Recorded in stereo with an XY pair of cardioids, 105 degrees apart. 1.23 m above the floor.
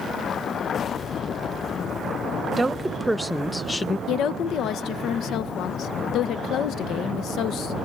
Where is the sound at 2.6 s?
15° right, 1.0 m; by 4.0 s 30° left, 0.6 m.